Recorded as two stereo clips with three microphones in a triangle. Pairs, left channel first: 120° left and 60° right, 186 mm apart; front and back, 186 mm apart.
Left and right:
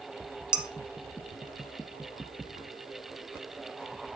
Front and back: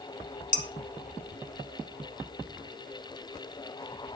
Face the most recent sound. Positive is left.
turn(degrees=25)